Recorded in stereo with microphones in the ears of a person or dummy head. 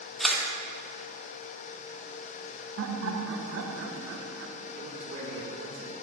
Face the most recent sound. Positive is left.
turn(degrees=-40)  # may be behind; listen again after turning